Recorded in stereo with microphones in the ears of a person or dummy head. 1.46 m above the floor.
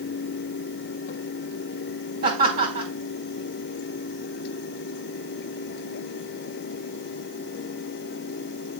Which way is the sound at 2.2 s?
50° right (ahead or behind).